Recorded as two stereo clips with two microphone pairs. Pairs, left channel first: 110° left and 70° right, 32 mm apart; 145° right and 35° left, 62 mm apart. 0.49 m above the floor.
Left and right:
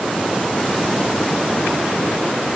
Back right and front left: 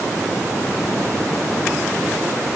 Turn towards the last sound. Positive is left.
No sound to turn to.